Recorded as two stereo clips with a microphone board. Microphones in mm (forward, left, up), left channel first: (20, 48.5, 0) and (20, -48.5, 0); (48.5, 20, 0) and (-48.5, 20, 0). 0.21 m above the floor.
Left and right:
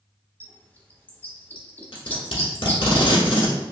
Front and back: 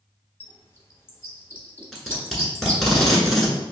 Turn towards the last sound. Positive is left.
turn(degrees=90)